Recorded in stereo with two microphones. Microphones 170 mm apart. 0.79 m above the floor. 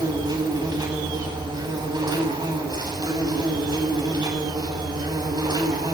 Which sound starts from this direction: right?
An insect, at 0.0 s.